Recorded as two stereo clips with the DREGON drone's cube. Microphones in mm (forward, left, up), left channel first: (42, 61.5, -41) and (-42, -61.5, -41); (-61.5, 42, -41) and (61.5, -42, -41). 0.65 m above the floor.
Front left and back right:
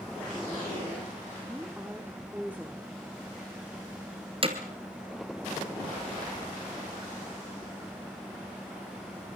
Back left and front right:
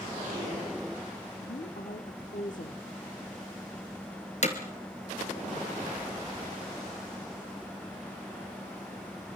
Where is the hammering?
175° right, 3 m.